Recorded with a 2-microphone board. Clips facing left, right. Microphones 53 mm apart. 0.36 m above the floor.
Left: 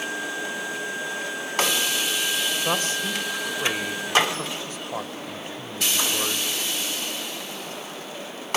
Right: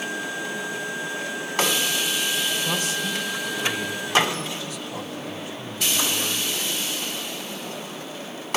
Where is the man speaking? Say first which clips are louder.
Left 1 dB; 40° left (ahead or behind), 1.7 m.